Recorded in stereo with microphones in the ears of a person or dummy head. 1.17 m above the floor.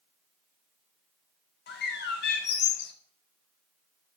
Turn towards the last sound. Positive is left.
turn(degrees=55)  # may be behind; listen again after turning